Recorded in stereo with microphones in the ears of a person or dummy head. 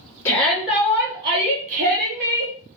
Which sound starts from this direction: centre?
A shout, at 0.2 s.